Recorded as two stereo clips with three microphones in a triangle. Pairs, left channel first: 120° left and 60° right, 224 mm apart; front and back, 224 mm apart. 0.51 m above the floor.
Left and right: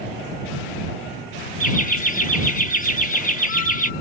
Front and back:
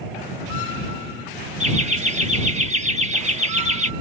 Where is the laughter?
140° left.